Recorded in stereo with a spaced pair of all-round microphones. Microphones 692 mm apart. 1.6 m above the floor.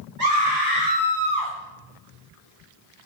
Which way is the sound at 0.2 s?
75° right (ahead or behind).